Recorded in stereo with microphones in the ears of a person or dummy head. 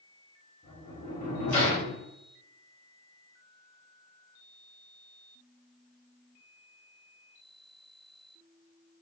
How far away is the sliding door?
About 1.3 m.